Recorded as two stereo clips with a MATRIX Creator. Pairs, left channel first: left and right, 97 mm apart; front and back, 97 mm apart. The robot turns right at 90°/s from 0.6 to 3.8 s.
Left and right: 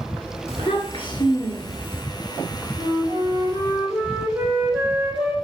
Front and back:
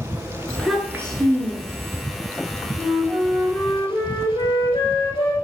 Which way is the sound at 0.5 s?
80° left.